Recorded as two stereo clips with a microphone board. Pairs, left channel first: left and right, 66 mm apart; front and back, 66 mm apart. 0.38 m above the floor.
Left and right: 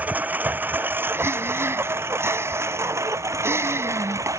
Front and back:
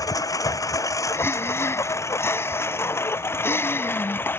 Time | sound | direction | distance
0.0 | a lawn mower | 25° right | ?
1.1 | breathing | 45° right | ?